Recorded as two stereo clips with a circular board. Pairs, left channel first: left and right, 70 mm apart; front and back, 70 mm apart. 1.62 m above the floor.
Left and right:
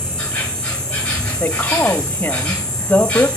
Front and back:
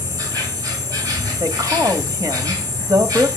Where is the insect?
165° left, 3 m.